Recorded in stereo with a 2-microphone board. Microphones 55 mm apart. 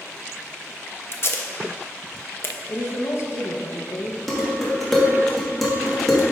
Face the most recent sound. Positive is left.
turn(degrees=5)  # may be behind; listen again after turning